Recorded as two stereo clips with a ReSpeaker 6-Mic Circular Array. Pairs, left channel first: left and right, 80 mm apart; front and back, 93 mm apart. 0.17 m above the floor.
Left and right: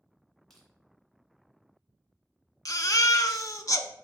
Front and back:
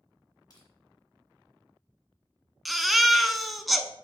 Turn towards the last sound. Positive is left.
turn(degrees=90)